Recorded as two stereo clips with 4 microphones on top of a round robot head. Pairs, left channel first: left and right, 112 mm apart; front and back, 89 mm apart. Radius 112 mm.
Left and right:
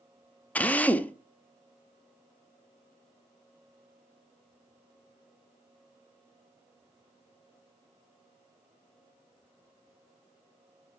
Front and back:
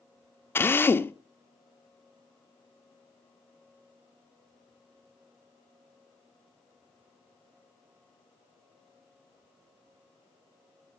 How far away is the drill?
About 1.1 m.